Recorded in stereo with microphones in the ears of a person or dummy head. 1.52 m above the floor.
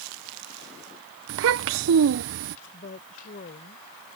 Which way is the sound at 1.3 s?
60° right (ahead or behind).